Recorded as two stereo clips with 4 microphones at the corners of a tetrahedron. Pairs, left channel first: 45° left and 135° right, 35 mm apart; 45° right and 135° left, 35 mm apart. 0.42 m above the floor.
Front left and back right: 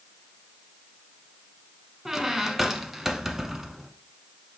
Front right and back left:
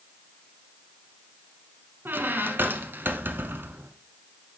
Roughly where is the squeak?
Behind left.